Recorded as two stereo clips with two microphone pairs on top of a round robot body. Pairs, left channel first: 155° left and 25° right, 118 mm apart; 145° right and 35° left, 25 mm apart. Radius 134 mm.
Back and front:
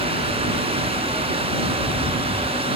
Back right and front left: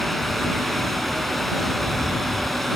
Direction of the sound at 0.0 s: 65° right.